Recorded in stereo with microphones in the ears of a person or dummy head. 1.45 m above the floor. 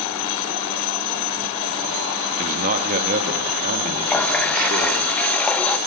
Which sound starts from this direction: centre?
A running tap, at 4.1 s.